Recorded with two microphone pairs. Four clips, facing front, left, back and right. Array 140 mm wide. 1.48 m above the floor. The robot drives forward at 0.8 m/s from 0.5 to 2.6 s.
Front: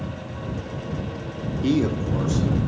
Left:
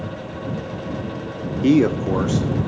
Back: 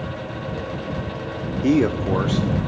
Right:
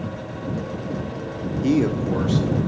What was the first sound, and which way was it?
A man speaking, 105° left.